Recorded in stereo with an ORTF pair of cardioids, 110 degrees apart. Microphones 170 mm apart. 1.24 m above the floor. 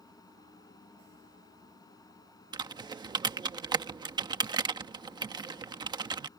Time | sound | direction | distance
0.0 | a fan | 20° left | ?
2.5 | typing on a keyboard | 25° right | ?